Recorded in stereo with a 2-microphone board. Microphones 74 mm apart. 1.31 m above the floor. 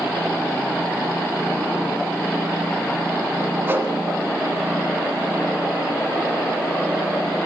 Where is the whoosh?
30° right (ahead or behind), 1.9 m.